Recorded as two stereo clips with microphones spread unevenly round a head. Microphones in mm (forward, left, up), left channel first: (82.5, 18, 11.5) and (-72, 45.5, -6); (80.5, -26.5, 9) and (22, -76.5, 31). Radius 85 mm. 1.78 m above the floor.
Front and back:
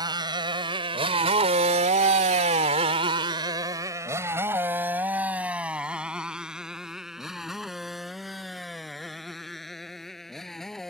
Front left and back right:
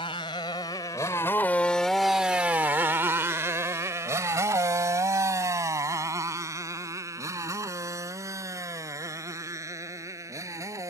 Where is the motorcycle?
105° left; by 10.9 s 100° right.